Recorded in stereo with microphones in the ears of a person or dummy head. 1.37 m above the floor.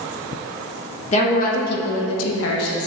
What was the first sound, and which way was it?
A woman speaking, 35° left (ahead or behind).